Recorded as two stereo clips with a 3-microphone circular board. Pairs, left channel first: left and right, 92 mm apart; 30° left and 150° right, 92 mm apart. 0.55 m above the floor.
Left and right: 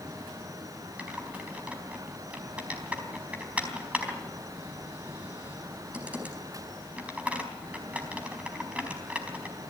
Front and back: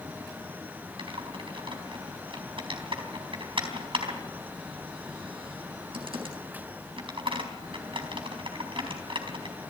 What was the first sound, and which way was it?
Typing on a keyboard, 165° right.